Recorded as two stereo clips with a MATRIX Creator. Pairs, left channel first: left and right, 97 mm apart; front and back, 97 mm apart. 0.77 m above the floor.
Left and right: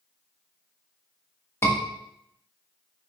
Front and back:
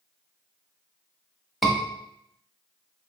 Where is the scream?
90° left, 0.7 m.